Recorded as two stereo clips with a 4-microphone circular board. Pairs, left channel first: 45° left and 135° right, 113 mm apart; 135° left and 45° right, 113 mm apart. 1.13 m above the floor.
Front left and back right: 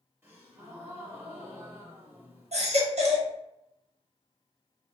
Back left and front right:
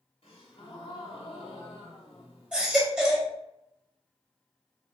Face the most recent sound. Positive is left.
turn(degrees=-125)